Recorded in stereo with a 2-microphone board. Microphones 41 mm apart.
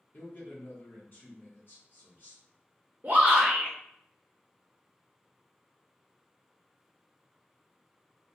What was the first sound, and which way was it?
A man speaking, 55° left (ahead or behind).